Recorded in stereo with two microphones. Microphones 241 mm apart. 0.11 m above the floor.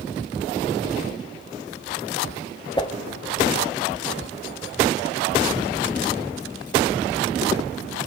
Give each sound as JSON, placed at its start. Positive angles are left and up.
{"t": 2.8, "sound": "a whoosh", "side_deg": 20, "distance_m": 2.0}